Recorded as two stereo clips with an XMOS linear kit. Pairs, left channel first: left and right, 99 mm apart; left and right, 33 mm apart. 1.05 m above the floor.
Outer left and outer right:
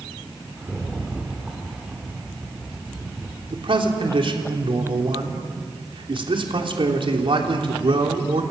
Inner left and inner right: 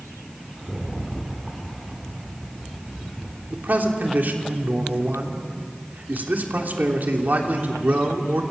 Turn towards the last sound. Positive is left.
turn(degrees=-60)  # may be behind; listen again after turning